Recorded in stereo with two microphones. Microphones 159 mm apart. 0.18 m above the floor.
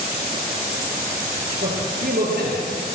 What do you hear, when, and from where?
1.6 s a man speaking: 65° right (ahead or behind), 4 m